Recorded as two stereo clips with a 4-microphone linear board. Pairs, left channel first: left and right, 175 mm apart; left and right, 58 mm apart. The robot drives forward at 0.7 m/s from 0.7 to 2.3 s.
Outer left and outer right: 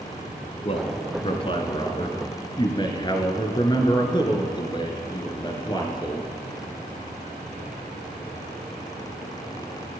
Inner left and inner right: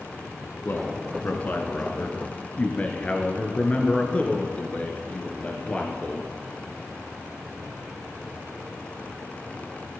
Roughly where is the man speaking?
Left.